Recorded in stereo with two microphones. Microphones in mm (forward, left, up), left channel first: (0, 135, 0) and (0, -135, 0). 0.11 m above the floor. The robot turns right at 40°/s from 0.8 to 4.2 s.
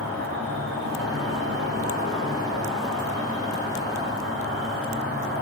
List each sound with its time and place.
0.0 s an insect: 80° right, 5 m; by 5.4 s 55° left, 5 m